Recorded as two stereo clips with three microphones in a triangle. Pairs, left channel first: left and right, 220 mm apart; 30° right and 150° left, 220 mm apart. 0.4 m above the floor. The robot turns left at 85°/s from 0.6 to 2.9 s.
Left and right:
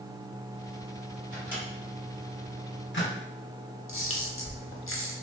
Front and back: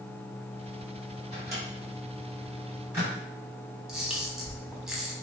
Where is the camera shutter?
65° left, 0.6 m.